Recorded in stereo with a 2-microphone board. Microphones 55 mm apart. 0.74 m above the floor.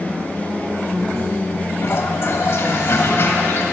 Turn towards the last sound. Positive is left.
turn(degrees=50)  # may be behind; listen again after turning